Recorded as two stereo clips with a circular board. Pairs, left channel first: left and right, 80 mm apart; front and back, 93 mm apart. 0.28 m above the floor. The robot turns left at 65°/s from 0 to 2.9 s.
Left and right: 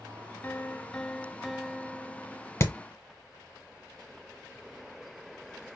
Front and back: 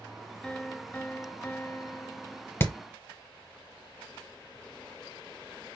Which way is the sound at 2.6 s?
55° left.